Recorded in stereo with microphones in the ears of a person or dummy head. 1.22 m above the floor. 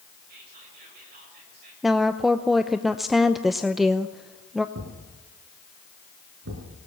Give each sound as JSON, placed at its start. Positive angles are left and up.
{"t": 0.3, "sound": "whispering", "side_deg": -60, "distance_m": 7.5}
{"t": 1.8, "sound": "a woman speaking", "side_deg": 0, "distance_m": 0.7}
{"t": 4.8, "sound": "a thud", "side_deg": -75, "distance_m": 8.0}